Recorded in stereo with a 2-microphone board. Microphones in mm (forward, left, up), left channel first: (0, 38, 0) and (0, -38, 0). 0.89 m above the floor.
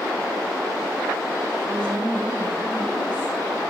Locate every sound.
1.6 s a woman speaking: 20° left (ahead or behind), 4.5 m